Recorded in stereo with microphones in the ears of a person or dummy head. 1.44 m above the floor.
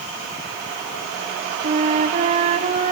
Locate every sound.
1.6 s a flute: 45° right (ahead or behind), 0.7 m